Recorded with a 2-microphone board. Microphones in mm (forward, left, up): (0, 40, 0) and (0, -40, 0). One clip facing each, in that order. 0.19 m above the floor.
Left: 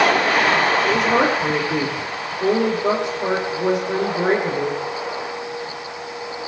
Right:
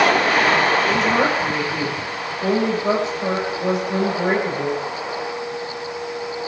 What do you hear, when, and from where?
0.8 s a woman speaking: 80° left, 6.5 m